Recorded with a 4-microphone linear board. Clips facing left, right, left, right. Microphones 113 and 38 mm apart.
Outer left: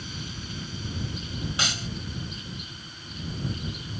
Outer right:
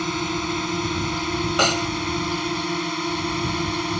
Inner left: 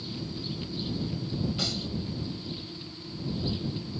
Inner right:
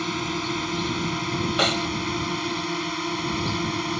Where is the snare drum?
55° right (ahead or behind).